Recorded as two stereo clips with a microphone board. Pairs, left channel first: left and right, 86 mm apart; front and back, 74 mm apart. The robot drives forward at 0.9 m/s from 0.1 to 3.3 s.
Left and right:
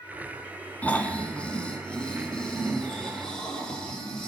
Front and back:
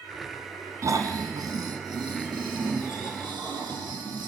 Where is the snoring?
160° left, 1.3 m; by 4.3 s 175° left, 3.5 m.